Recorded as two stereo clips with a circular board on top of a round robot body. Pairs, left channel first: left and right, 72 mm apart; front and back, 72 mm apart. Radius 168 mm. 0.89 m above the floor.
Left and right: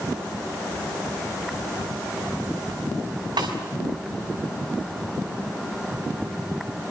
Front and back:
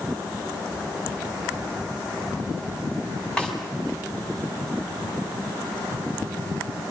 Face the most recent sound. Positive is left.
turn(degrees=-80)